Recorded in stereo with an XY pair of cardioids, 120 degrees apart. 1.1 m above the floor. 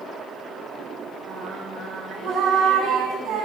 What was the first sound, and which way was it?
Singing, 60° right.